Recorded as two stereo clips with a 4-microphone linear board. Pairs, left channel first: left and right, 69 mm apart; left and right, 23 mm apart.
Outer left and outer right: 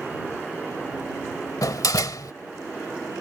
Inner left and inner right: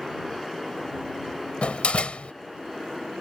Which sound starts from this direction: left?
A door slam, at 1.6 s.